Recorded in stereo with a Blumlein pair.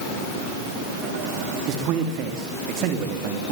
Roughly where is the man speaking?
Ahead right.